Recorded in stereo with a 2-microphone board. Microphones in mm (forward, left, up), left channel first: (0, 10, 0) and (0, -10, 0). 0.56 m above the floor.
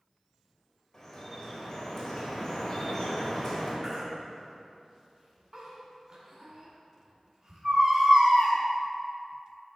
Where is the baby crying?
45° right (ahead or behind), 1.9 m.